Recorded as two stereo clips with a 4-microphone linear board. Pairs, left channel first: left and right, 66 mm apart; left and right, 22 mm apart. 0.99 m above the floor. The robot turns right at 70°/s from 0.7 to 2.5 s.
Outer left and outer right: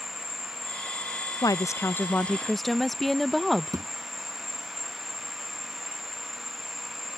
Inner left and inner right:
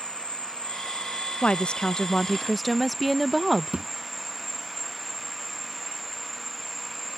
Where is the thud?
70° right (ahead or behind).